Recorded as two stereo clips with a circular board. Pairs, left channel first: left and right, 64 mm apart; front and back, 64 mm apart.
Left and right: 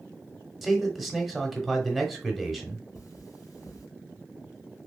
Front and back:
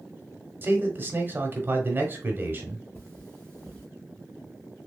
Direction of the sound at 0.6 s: Straight behind.